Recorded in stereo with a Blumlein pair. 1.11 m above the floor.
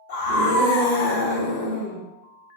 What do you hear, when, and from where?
0.1 s a scream: 55° left, 1.2 m